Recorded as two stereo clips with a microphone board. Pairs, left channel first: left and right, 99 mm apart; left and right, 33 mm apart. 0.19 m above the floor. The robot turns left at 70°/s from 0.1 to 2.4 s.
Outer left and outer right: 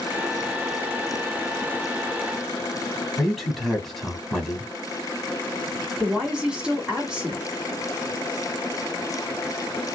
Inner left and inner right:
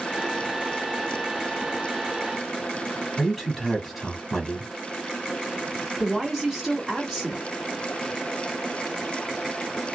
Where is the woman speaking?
10° right (ahead or behind), 1.7 m.